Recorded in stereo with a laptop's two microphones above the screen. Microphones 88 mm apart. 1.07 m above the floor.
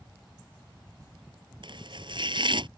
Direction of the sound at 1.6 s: 65° right (ahead or behind).